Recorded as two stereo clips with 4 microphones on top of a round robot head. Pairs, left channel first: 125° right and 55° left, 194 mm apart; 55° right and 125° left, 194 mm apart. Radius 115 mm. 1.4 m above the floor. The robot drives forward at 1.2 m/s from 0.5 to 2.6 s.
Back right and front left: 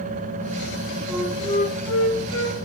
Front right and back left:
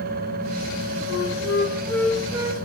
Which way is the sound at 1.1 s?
30° right.